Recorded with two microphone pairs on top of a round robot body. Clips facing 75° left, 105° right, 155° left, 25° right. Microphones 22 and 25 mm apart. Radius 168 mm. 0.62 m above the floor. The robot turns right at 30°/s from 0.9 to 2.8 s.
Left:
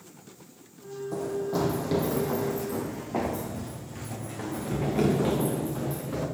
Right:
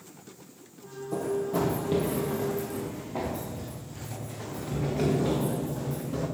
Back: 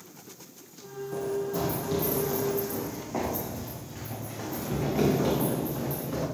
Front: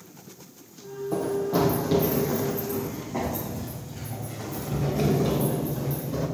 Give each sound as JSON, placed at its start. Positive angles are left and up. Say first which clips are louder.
{"t": 1.1, "sound": "running footsteps", "louder": "right 1 dB, front 5 dB", "azimuth_deg": -5, "distance_m": 2.5}